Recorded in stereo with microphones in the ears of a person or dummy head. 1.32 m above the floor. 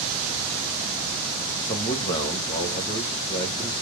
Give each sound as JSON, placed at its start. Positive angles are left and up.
{"t": 1.6, "sound": "a man speaking", "side_deg": 25, "distance_m": 1.3}